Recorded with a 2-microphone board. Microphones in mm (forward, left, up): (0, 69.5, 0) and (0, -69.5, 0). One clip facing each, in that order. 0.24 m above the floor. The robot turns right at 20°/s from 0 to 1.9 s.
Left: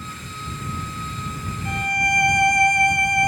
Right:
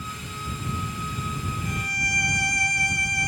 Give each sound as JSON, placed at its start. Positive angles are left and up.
{"t": 1.6, "sound": "a violin", "side_deg": 60}